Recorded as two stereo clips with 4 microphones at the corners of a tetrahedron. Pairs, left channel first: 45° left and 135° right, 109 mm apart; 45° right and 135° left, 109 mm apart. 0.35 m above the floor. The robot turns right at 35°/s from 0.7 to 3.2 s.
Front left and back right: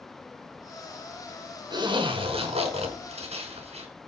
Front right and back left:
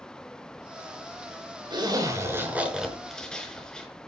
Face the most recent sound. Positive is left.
turn(degrees=-130)